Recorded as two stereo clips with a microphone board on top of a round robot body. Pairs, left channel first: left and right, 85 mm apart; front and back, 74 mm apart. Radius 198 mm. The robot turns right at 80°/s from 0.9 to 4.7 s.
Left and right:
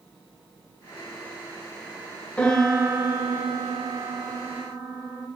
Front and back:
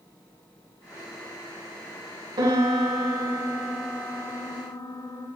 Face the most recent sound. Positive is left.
turn(degrees=-10)